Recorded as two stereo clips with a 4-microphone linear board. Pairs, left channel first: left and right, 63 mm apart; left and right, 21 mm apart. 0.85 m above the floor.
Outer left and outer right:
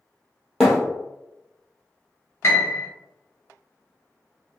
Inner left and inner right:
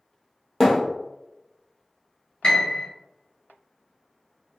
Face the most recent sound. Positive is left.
turn(degrees=40)  # may be behind; listen again after turning